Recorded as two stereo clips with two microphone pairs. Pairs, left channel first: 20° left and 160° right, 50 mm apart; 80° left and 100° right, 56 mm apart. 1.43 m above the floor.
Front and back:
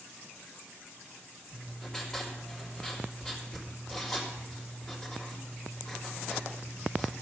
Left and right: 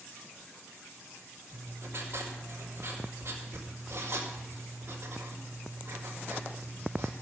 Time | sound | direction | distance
1.5 | writing | 60° right | 3 m